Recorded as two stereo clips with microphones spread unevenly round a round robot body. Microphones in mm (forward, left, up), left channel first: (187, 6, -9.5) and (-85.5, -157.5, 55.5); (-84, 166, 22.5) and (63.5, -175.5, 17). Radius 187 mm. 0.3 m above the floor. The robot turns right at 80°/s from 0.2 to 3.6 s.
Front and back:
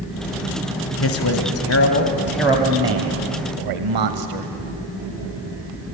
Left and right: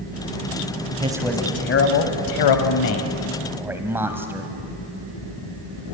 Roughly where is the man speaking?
Ahead.